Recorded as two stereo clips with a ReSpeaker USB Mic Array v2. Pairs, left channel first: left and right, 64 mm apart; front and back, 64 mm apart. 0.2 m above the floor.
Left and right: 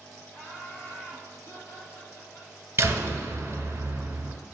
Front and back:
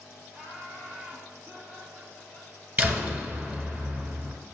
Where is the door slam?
130° right, 1.2 m.